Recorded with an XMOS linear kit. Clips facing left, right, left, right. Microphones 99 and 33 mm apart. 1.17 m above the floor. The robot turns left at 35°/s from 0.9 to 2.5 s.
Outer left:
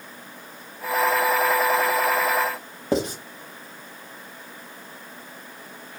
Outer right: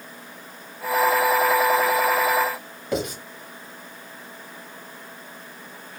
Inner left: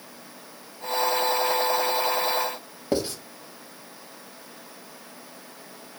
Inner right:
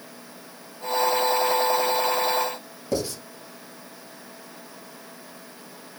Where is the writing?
35° left (ahead or behind), 1.1 m.